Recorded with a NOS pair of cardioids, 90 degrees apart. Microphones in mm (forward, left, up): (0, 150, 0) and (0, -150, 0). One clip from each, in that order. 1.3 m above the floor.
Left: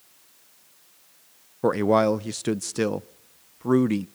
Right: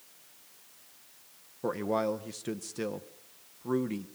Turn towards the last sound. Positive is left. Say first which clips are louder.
# left 10 dB
turn(degrees=45)